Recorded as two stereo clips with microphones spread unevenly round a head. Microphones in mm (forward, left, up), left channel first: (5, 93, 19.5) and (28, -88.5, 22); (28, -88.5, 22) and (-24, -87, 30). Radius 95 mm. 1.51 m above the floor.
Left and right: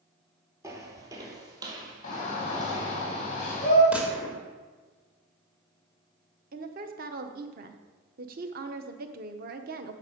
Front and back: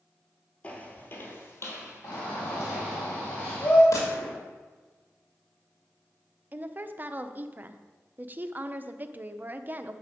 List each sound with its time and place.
0.6 s footsteps: 40° right, 1.5 m; by 3.0 s 15° right, 3.5 m
2.0 s a shout: 45° left, 2 m
3.9 s a gunshot: straight ahead, 2 m
6.5 s a woman speaking: 130° right, 0.9 m